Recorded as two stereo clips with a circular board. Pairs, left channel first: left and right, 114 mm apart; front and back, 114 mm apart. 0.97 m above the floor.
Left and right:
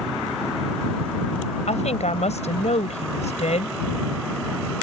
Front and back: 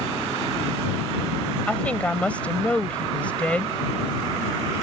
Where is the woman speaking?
80° left.